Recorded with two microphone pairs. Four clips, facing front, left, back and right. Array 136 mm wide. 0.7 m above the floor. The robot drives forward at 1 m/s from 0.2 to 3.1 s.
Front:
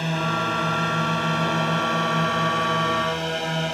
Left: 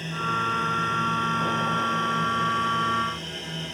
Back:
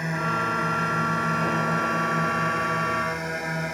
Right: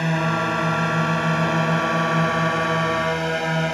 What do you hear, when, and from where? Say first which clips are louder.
0.0 s a drone: right 6 dB, front 2 dB; 75° right; by 3.7 s 70° right